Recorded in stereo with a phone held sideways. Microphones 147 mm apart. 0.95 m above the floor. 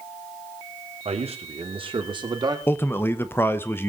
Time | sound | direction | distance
1.1 | a man speaking | 50° right (ahead or behind) | 2.5 m
2.7 | a man speaking | 15° left (ahead or behind) | 0.9 m